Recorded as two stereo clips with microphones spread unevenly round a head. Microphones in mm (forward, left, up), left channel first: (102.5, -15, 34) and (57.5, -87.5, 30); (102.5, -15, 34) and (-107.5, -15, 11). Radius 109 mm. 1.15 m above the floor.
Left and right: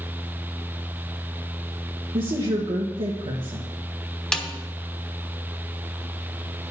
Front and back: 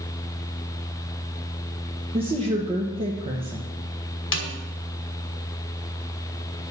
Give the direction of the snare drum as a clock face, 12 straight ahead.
1 o'clock.